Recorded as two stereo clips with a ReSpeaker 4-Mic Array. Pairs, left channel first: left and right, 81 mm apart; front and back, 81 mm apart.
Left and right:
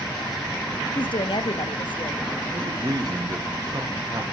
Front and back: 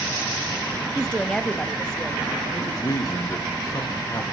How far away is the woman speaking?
About 0.7 m.